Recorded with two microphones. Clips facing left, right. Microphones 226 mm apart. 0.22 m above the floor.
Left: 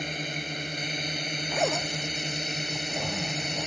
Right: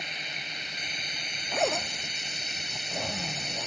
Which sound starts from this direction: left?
A drone, at 0.0 s.